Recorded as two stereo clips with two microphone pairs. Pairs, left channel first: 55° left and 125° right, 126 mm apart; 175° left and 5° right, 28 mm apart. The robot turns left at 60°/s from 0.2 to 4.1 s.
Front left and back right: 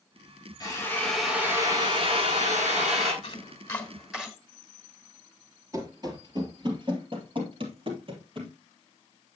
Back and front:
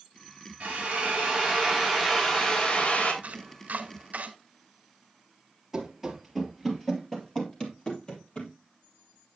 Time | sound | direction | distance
0.6 | a drill | straight ahead | 3.5 m
3.2 | chopping | 15° left | 1.8 m
5.7 | running footsteps | 85° right | 2 m